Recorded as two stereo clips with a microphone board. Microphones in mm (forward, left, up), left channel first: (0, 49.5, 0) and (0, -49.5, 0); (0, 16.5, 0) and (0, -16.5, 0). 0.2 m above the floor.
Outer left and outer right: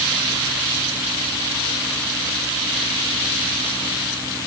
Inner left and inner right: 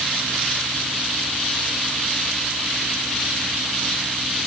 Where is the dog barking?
I don't hear a dog barking.